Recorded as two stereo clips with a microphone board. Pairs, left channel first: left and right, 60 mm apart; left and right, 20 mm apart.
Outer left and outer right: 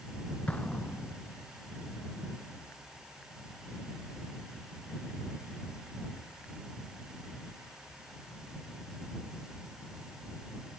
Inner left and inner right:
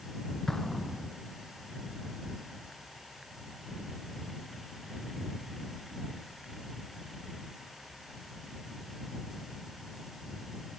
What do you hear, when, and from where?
0.5 s an explosion: 25° left (ahead or behind)